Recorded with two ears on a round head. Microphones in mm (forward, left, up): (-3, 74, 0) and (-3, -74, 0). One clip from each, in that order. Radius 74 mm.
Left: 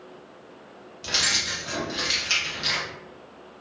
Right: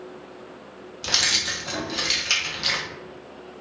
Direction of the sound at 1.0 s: 15° right (ahead or behind).